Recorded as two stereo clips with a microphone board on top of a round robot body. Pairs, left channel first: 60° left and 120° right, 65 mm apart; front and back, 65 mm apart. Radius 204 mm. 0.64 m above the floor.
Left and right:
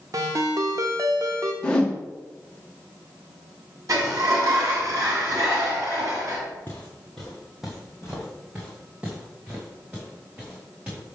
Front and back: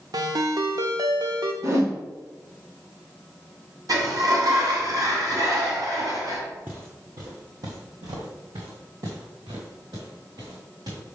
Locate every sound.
0.1 s a ringtone: 160° right, 0.6 m
1.6 s a whoosh: 135° left, 1.2 m
3.9 s a sliding door: 155° right, 2.5 m
6.7 s footsteps: 110° left, 0.7 m; by 11.0 s 165° left, 4.5 m